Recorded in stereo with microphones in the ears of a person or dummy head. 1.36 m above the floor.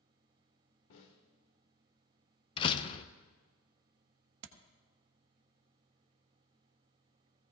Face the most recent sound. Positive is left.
turn(degrees=-65)  # may be behind; listen again after turning